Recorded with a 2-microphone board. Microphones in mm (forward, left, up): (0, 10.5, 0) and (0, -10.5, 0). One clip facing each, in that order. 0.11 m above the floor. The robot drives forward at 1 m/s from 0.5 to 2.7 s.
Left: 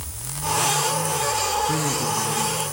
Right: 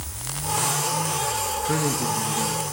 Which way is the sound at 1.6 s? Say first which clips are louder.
Left 1 dB; 20° right (ahead or behind).